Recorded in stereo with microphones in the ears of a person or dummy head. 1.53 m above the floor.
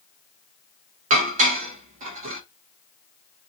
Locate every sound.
1.1 s dishes clattering: 45° right (ahead or behind), 1.3 m